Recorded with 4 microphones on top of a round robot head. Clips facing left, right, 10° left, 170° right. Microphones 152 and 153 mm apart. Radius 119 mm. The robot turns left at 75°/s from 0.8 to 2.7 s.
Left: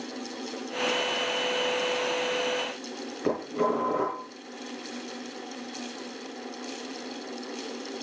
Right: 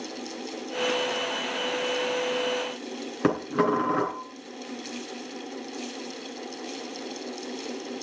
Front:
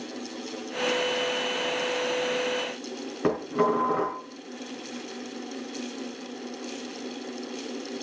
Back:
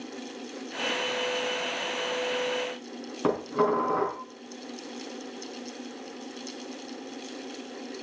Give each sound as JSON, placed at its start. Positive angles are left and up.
{"t": 3.2, "sound": "dishes clattering", "azimuth_deg": -80, "distance_m": 3.0}